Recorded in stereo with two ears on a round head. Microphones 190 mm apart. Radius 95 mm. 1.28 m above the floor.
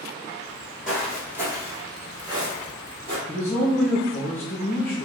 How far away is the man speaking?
About 1.2 m.